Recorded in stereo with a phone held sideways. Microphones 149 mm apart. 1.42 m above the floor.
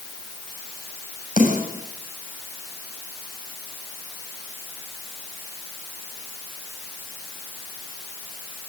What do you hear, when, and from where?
1.4 s a snare drum: 65° left (ahead or behind), 7 m